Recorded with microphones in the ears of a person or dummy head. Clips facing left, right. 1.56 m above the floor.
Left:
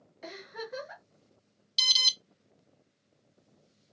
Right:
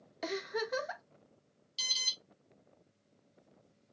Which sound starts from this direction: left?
An alarm, at 1.8 s.